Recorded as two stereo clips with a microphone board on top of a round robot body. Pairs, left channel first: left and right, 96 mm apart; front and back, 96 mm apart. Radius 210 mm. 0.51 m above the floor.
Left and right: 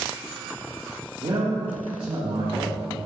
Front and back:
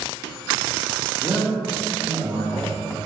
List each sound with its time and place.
1.2 s a man speaking: 110° right, 2 m